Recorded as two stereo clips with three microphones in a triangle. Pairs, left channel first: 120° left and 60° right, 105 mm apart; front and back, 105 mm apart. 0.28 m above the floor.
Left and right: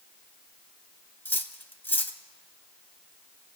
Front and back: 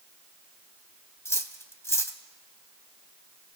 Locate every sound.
1.2 s cutlery clinking: 55° left, 1.1 m